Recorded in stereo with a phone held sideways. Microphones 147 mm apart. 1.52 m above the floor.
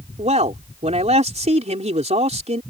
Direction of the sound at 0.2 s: 50° right (ahead or behind).